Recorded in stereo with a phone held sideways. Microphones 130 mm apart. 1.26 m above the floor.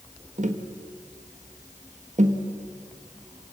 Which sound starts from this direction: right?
Tapping, at 0.4 s.